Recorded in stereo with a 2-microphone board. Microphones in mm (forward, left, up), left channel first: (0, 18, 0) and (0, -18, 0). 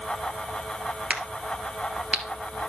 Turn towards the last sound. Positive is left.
turn(degrees=-30)  # may be behind; listen again after turning